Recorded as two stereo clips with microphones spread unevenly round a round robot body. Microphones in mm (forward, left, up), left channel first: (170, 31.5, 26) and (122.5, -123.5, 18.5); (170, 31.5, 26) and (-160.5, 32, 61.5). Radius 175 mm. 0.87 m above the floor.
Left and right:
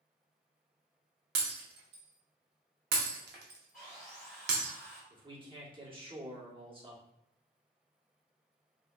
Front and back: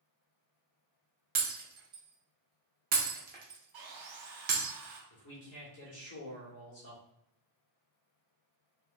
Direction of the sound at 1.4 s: 120° right.